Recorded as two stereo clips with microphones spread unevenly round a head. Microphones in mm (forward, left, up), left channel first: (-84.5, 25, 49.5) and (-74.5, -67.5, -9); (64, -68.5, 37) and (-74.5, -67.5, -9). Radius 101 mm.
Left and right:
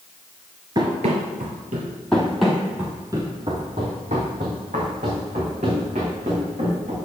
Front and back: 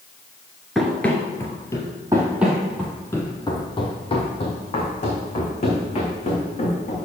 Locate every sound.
0.8 s running footsteps: 15° left, 1.2 m; by 1.9 s 50° right, 2 m
2.1 s running footsteps: 90° left, 1.5 m; by 7.0 s 30° right, 4.5 m